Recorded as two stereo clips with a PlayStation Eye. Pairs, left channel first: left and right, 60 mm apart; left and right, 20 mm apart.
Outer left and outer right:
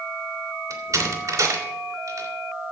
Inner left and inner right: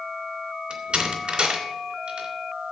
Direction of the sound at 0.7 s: 60° right (ahead or behind).